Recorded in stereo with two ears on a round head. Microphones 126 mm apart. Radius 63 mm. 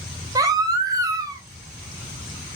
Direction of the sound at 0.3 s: 25° right (ahead or behind).